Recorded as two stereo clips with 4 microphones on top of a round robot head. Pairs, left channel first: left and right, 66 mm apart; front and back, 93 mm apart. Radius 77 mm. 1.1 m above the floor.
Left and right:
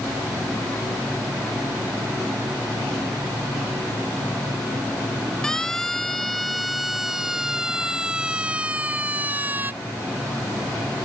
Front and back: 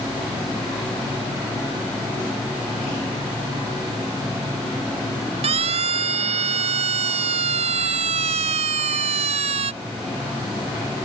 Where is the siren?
175° left; by 9.7 s 160° right.